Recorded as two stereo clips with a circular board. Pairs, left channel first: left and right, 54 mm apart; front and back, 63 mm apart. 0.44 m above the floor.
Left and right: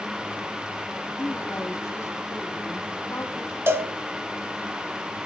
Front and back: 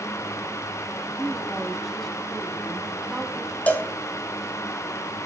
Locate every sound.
1.2 s a woman speaking: 90° left, 3 m
3.7 s a cowbell: 60° right, 1.3 m